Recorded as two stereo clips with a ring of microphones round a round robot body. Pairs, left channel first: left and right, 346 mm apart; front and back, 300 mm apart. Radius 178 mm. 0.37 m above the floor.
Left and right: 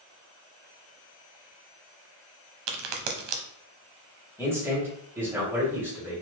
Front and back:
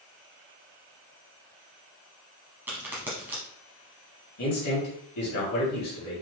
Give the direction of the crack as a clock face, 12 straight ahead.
3 o'clock.